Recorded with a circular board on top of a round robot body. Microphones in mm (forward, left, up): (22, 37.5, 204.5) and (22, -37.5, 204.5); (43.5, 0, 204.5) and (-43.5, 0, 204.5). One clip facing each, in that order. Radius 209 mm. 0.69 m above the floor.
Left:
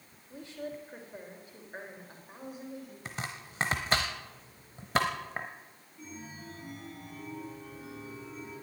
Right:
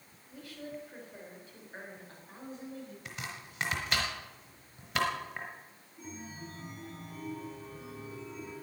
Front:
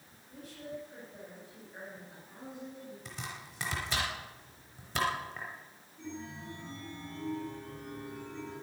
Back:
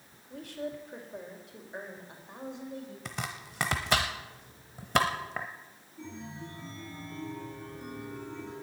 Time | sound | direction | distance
0.3 | a woman speaking | 155° left | 3.5 m
3.0 | chopping | 150° left | 0.8 m
6.0 | a chime | 150° right | 6.5 m